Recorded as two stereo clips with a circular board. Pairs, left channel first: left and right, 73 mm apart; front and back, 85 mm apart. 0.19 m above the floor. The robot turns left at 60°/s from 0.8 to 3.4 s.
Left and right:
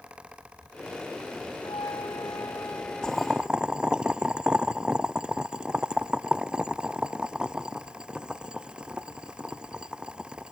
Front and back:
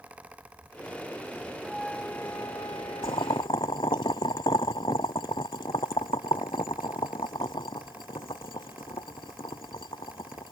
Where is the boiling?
10° left; by 10.5 s 15° right.